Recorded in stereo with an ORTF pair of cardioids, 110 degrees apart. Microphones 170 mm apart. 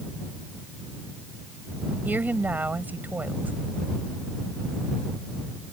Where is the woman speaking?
10° right.